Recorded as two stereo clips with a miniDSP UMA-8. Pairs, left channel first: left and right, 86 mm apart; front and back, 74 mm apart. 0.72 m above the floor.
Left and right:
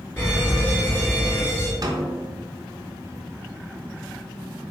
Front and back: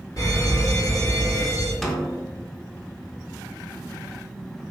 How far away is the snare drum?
About 0.6 m.